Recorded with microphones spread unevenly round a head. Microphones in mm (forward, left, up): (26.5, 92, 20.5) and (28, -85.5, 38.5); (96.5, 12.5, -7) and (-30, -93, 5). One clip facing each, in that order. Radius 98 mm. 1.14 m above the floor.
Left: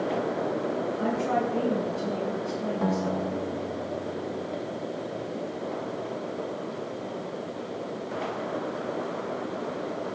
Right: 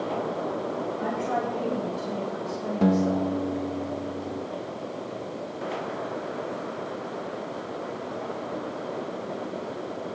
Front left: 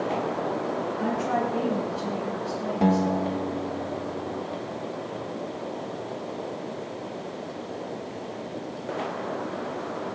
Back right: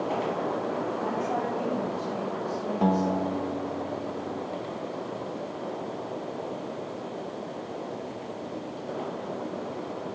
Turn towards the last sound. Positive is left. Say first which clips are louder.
# right 8 dB, front left 2 dB
turn(degrees=-35)